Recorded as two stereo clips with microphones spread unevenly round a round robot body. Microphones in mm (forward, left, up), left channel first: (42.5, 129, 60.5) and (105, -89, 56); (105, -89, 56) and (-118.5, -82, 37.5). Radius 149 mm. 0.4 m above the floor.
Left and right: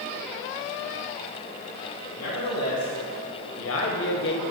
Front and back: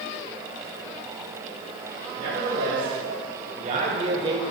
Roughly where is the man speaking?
Behind left.